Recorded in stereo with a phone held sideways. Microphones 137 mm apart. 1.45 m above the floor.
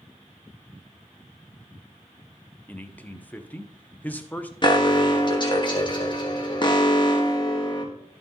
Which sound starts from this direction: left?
An alarm, at 4.6 s.